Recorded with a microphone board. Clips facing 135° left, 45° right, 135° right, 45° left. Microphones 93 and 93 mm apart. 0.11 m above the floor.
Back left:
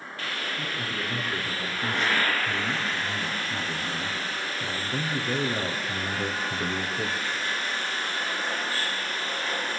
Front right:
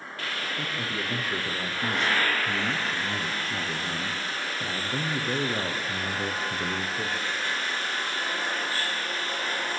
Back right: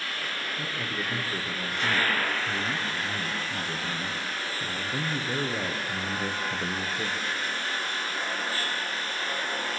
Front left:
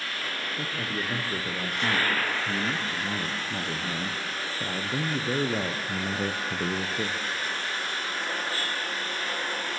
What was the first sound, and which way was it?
A man speaking, 15° left.